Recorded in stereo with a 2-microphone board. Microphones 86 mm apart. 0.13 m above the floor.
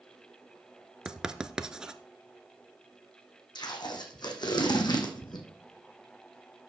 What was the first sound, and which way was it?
Writing, 10° right (ahead or behind).